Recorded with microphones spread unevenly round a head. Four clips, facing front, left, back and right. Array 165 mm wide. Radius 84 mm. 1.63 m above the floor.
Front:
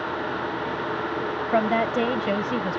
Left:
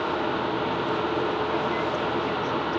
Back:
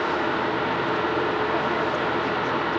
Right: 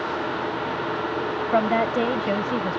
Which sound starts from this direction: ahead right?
A woman speaking, at 1.5 s.